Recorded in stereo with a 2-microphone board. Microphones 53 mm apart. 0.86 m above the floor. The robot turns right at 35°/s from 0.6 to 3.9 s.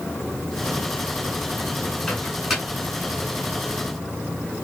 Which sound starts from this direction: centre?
A microwave, at 2.1 s.